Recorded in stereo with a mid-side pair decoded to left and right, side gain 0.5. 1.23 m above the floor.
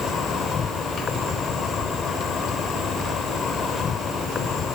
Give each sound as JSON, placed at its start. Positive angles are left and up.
{"t": 0.0, "sound": "an insect", "azimuth_deg": 50}